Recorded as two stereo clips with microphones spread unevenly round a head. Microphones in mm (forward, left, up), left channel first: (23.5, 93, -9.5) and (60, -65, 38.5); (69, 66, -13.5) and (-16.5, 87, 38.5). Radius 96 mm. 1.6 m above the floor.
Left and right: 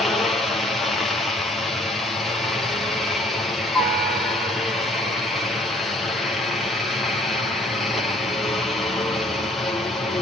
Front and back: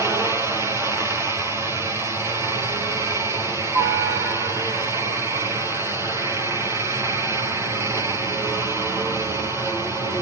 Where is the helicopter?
65° left.